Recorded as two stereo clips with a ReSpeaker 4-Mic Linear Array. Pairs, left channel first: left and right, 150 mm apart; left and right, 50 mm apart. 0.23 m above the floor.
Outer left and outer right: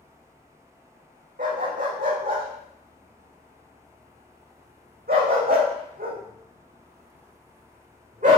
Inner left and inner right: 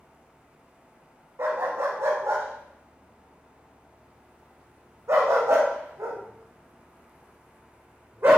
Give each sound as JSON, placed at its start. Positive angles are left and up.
{"t": 1.4, "sound": "a dog barking", "side_deg": -65, "distance_m": 3.5}